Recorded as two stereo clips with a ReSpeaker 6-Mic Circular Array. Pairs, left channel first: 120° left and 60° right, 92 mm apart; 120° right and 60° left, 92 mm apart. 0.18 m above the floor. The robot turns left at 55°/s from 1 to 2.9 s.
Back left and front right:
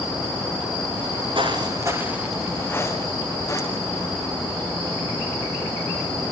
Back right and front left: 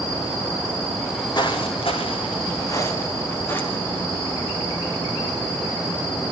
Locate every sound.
1.4 s footsteps: 85° right, 3 m; by 4.1 s 170° left, 6 m